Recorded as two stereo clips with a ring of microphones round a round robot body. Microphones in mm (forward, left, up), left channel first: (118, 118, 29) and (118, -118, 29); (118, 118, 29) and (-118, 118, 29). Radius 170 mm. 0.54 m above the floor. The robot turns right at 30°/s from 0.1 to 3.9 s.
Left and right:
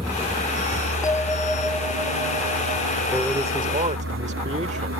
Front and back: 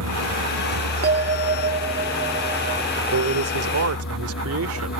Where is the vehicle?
170° right; by 5.0 s 55° right.